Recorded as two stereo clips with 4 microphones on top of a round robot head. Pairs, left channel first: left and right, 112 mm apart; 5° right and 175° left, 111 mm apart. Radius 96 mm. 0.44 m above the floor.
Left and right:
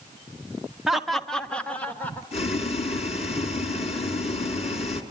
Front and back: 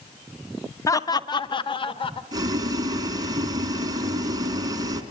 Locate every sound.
0.9 s laughter: 5° right, 0.8 m; by 2.2 s 15° left, 1.4 m
2.3 s boiling: 120° left, 3 m